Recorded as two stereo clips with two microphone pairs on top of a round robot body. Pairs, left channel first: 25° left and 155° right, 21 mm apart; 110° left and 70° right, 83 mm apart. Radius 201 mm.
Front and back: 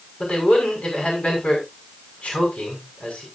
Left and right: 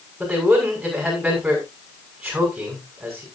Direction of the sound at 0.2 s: 15° left.